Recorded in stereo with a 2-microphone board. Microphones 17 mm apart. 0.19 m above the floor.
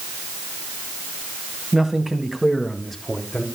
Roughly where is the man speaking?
Right.